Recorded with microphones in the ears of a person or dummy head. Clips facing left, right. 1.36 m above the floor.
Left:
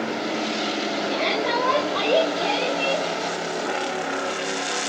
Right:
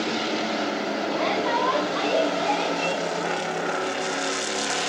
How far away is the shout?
About 3 m.